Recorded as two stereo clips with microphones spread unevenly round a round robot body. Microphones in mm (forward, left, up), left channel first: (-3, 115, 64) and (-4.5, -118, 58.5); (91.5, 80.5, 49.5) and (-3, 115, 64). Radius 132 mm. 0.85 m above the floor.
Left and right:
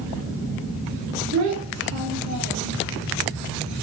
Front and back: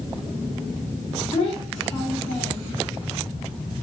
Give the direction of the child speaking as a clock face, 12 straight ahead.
2 o'clock.